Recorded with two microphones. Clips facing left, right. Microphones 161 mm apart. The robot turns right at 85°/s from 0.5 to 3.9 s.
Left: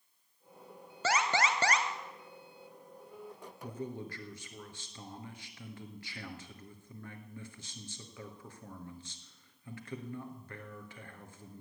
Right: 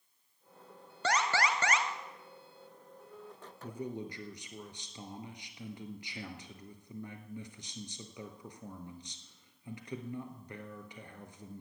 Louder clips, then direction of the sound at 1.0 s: Even; 5° left.